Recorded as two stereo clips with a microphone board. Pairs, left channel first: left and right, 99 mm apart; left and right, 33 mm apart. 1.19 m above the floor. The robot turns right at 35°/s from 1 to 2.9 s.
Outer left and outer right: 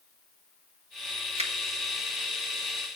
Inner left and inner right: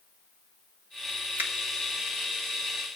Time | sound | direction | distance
1.4 | a finger snap | 85° right | 1.1 m